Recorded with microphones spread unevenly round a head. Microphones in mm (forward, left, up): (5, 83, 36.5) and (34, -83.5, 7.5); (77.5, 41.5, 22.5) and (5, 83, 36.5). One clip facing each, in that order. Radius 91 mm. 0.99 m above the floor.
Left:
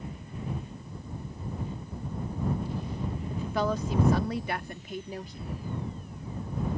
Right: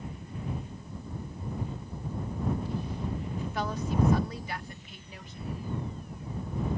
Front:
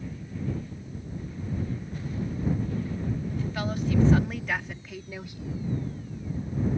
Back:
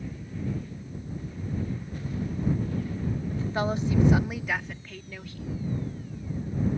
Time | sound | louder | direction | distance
3.3 | a woman speaking | left 9 dB, back 3 dB | 95° left | ?